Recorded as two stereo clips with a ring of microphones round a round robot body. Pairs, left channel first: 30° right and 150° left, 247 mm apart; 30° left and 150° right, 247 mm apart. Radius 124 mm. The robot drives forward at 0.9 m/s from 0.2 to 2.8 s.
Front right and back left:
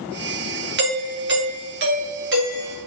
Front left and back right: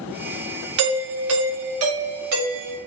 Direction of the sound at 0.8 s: 165° right.